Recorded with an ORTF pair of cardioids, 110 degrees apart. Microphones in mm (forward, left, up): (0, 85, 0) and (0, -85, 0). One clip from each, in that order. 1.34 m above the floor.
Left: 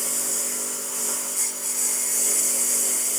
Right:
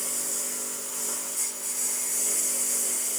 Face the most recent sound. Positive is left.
turn(degrees=30)